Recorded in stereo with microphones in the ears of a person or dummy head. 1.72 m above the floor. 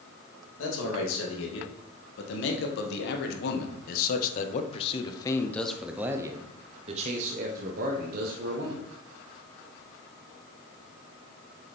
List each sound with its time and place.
0.6 s a man speaking: 80° left, 3 m; by 8.8 s 60° right (ahead or behind), 2 m